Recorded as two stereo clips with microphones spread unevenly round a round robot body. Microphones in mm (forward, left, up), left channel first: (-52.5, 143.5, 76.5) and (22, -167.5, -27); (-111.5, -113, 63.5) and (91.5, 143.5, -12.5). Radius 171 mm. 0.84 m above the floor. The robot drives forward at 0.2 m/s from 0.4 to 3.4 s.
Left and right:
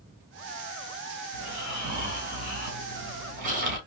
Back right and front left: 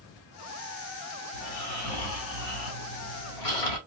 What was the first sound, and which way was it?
Snoring, 140° right.